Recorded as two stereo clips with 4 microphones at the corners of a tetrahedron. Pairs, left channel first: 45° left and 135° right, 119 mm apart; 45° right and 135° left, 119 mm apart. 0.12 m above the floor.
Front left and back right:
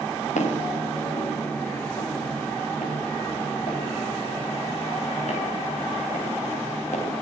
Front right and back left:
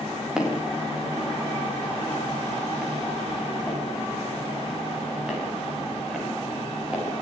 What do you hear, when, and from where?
0.4 s footsteps: 50° left, 7.5 m